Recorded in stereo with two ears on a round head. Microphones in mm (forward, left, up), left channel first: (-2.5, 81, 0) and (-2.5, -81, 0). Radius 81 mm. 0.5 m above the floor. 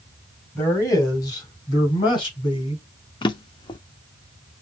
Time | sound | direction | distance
0.6 | a man speaking | 20° left (ahead or behind) | 2.5 m
3.2 | a drawer | 25° left (ahead or behind) | 0.6 m